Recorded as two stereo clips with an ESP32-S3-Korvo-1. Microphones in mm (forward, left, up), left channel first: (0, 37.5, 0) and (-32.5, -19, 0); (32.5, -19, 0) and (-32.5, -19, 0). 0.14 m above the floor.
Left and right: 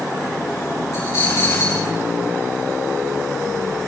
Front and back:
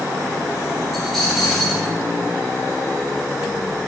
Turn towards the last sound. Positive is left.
turn(degrees=90)